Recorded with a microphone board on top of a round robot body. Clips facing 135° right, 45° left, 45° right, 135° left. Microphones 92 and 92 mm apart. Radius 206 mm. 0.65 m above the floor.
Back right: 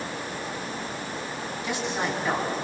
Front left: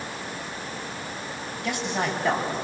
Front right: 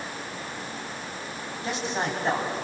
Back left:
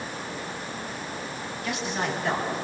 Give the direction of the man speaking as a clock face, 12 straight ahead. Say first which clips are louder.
Front left 2 dB, front right 1 dB; 11 o'clock.